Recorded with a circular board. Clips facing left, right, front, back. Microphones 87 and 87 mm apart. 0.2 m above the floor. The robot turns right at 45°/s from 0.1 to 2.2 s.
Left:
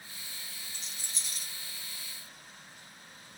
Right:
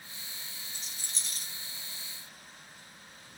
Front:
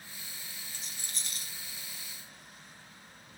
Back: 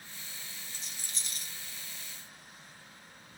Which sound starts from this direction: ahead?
A rattle, at 0.7 s.